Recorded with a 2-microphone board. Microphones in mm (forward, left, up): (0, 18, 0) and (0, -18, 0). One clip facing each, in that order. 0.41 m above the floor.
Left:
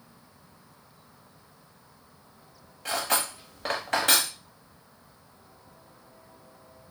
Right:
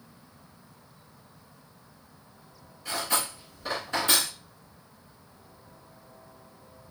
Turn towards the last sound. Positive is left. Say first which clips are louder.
# left 2 dB
turn(degrees=65)  # may be behind; listen again after turning